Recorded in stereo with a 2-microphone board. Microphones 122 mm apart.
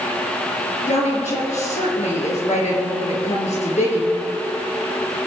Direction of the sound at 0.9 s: 70° left (ahead or behind).